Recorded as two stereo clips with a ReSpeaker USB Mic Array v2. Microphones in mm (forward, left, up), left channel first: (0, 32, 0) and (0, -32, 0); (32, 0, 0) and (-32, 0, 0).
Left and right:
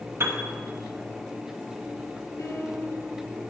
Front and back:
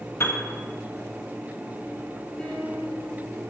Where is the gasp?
No gasp in this recording.